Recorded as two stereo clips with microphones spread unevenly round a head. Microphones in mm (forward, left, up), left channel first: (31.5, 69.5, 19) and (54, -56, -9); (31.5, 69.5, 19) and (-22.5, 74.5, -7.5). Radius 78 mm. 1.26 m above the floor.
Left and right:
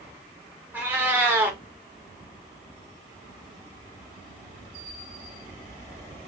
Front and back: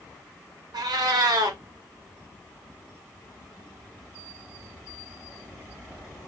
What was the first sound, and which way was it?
A cat meowing, 165° right.